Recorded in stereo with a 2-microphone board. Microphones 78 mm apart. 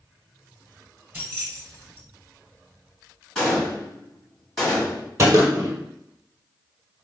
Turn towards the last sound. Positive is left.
turn(degrees=-35)  # may be behind; listen again after turning